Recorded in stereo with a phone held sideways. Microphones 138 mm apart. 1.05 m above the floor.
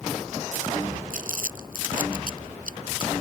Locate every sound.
1.1 s crumpling: 75° right (ahead or behind)